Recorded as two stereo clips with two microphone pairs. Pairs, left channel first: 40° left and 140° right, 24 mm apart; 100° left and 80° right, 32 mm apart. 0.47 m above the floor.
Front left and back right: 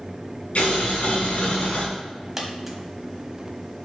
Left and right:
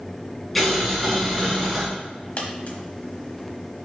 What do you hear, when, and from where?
0.6 s boiling: 15° left, 3 m
2.4 s a dropped coin: 145° left, 1.2 m